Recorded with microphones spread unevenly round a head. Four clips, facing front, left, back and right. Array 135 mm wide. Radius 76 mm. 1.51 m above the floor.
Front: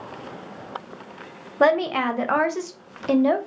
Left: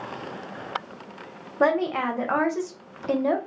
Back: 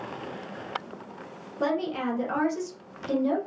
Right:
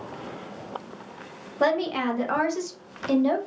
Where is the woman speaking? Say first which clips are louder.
Left 1 dB, front 8 dB; 15° left, 0.6 m.